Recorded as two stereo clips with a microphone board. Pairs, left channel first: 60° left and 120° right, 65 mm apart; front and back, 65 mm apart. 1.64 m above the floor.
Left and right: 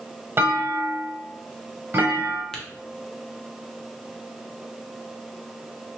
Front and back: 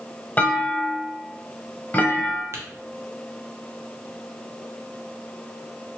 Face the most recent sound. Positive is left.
turn(degrees=140)